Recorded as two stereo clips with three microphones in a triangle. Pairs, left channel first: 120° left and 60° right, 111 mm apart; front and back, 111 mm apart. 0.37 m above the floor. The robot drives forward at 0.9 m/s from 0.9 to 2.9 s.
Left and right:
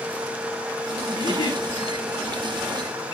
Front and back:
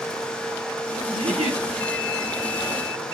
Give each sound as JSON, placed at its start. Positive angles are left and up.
{"t": 1.1, "sound": "a giggle", "azimuth_deg": 165, "distance_m": 1.0}